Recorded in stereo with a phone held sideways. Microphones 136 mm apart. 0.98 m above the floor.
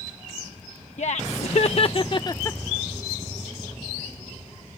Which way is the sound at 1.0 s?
60° left (ahead or behind).